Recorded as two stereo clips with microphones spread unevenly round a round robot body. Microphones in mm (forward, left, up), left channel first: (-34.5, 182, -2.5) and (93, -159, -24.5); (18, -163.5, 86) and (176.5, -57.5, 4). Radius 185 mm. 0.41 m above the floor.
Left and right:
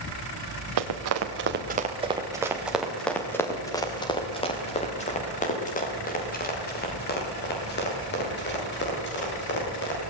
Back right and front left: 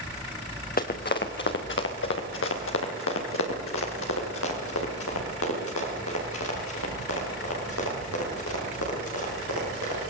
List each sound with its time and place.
0.8 s running footsteps: 115° right, 2 m; by 10.0 s 170° left, 11.5 m